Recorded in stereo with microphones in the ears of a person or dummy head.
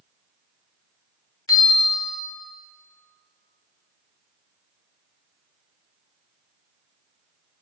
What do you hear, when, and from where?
1.5 s a bell: 20° left (ahead or behind), 0.9 m